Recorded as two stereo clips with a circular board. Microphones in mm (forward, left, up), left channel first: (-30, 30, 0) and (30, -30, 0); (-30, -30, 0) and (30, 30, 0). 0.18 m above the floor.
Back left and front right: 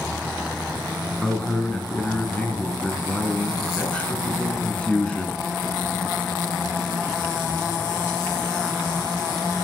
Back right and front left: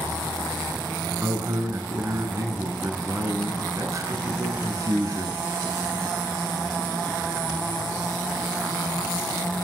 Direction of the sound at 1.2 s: 65° left.